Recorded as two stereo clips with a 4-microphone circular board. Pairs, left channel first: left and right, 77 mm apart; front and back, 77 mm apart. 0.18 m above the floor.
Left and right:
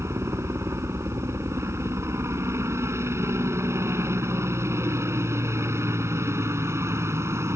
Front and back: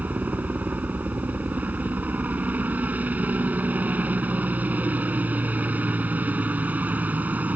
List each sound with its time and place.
0.0 s a helicopter: 120° right